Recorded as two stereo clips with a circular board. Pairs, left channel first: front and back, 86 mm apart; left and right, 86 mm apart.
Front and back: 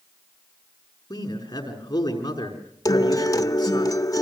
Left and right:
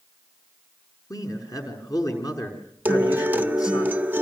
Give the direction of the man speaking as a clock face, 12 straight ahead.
11 o'clock.